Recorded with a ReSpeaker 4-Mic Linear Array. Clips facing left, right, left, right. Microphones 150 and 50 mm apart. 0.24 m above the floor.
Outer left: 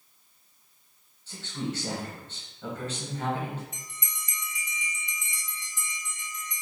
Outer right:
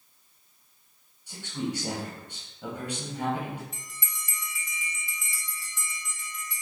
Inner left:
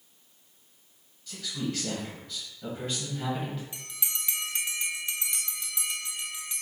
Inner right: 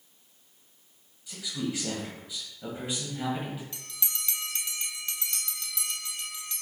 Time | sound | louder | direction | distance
1.3 | a man speaking | outer right 1 dB, even | 15° right (ahead or behind) | 1.6 m
3.7 | a bell | even, inner left 2 dB | 20° left (ahead or behind) | 1.0 m